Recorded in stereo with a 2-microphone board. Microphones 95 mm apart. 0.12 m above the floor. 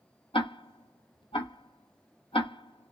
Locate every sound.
0.3 s ticking: 80° left, 0.6 m